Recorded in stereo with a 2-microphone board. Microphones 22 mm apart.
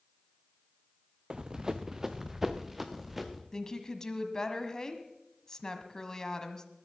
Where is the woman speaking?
25° left (ahead or behind), 1.4 m.